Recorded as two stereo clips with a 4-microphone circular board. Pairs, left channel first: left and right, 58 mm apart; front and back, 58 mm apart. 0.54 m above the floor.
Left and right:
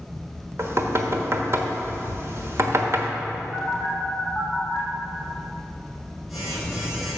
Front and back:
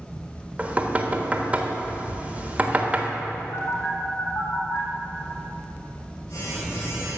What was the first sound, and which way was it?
Knocking, 120° right.